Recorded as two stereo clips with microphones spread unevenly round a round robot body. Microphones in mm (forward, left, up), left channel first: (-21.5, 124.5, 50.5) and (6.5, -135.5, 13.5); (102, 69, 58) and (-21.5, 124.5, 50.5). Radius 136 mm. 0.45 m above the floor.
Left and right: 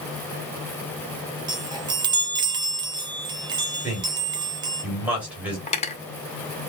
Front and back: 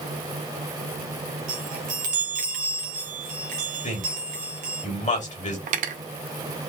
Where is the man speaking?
5° right, 2 m.